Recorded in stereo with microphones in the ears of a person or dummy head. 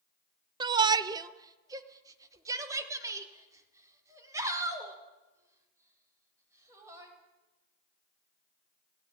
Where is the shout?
25° right (ahead or behind), 0.7 m; by 7.1 s 15° right (ahead or behind), 7 m.